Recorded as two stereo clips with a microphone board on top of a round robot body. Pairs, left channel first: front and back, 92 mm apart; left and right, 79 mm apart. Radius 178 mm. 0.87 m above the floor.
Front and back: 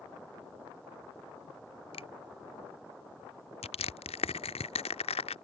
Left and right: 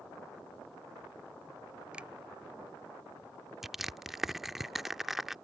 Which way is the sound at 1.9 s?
15° right.